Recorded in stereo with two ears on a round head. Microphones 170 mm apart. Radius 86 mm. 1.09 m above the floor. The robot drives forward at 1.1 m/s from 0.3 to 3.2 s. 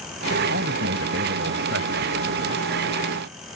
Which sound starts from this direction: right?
A man speaking, at 0.5 s.